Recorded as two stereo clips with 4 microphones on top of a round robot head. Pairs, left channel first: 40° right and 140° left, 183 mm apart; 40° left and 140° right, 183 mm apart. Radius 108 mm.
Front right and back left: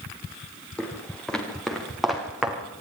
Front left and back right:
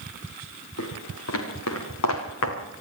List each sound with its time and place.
0.8 s footsteps: 45° left, 6 m; by 2.6 s 55° left, 5 m